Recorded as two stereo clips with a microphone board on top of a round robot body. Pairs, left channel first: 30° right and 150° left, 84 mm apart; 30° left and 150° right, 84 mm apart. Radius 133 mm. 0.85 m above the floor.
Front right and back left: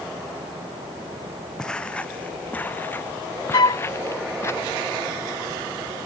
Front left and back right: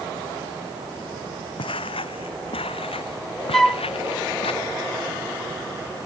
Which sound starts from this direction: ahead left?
Footsteps, at 1.6 s.